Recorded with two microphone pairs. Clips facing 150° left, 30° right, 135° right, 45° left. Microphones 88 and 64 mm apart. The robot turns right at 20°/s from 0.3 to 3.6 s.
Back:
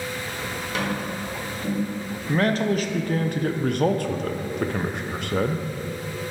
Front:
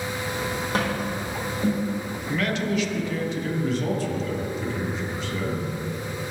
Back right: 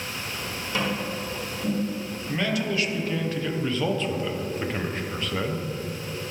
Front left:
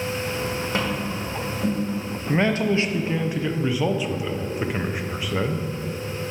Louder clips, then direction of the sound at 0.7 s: Even, back right 2 dB; 10° left.